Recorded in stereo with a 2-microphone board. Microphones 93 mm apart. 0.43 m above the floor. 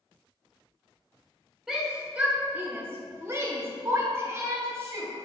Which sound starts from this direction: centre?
A shout, at 1.7 s.